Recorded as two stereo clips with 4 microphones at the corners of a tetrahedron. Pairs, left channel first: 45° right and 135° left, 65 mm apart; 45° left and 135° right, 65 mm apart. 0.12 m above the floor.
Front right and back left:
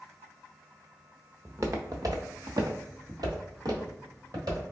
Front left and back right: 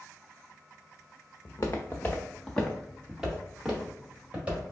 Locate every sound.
1.4 s footsteps: 85° left, 0.9 m; by 4.7 s 160° left, 2.5 m